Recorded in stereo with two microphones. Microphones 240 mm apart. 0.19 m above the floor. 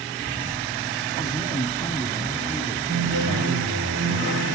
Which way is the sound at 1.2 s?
15° left (ahead or behind).